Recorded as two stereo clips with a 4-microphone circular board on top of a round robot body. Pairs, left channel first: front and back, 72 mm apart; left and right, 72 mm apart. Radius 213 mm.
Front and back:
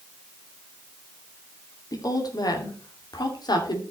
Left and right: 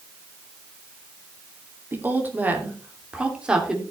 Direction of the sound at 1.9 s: 30° right.